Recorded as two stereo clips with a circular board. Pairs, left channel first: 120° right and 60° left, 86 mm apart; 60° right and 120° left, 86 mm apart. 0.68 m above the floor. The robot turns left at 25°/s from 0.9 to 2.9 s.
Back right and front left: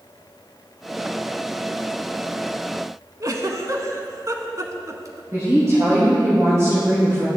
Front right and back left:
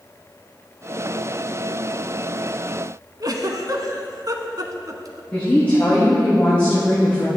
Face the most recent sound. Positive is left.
turn(degrees=10)